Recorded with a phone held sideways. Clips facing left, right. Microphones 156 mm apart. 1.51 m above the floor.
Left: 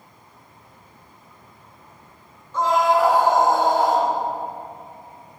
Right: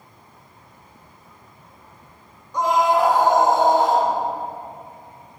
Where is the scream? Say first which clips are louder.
Even; 15° right (ahead or behind), 3 m; by 4.1 s 25° right (ahead or behind), 4.5 m.